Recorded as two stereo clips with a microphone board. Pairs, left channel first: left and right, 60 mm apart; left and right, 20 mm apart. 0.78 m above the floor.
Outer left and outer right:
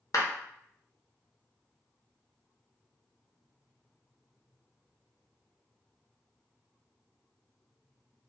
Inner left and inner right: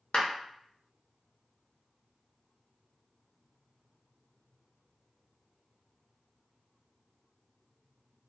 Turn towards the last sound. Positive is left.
turn(degrees=65)  # may be behind; listen again after turning